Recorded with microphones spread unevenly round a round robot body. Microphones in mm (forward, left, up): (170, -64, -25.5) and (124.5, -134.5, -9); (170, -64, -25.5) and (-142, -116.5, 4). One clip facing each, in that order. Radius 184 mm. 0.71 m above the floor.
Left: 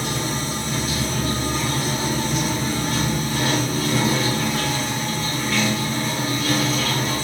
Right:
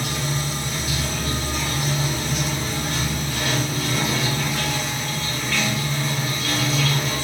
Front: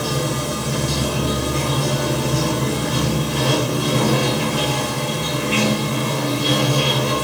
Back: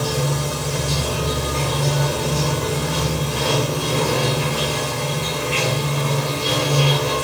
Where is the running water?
40° left, 0.8 m.